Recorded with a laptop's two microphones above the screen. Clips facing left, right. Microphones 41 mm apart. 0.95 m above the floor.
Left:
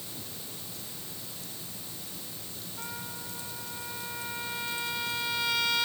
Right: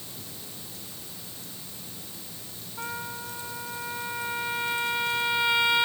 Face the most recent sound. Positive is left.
turn(degrees=-25)  # may be behind; listen again after turning